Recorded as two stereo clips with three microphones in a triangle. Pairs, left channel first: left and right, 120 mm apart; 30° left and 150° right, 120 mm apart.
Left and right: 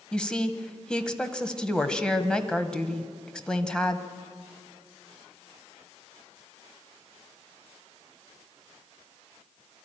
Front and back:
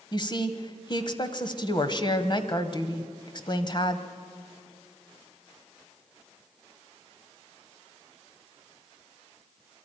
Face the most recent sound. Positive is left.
turn(degrees=10)